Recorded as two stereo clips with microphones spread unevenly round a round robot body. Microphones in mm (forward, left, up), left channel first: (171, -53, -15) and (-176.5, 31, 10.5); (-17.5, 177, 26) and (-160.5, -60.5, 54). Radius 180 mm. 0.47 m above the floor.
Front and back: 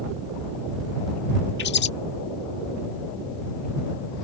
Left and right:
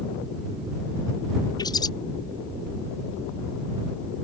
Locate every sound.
1.6 s a bird: 5° left